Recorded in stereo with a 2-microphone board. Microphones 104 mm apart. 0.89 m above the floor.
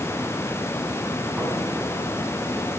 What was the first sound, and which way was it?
Tapping, 5° right (ahead or behind).